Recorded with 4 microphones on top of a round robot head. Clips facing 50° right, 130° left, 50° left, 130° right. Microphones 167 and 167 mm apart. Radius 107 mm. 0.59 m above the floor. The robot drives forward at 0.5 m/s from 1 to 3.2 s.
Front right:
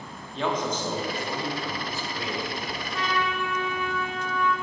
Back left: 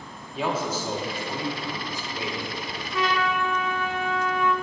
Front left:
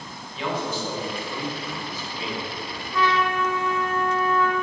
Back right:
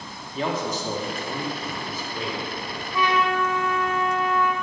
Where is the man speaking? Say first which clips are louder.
Even, back right 1 dB; 150° right, 1.7 m; by 2.8 s 165° right, 2.5 m.